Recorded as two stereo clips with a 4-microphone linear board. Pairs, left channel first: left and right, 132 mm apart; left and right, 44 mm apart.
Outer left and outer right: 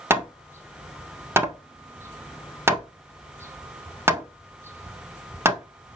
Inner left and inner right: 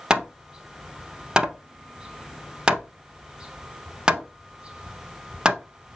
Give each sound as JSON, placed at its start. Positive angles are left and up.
{"t": 0.1, "sound": "hammering", "side_deg": -20, "distance_m": 0.6}